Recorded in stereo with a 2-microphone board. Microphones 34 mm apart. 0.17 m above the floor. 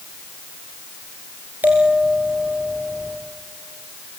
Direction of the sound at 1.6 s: 85° right.